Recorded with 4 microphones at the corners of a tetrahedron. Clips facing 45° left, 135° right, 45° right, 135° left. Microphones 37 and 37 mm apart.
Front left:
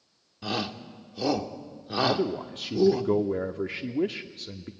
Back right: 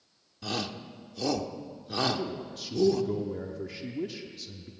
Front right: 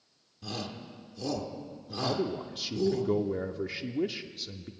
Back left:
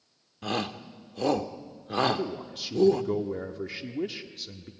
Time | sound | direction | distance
0.4 | a shout | 115° left | 1.2 m
2.0 | a man speaking | 45° left | 0.8 m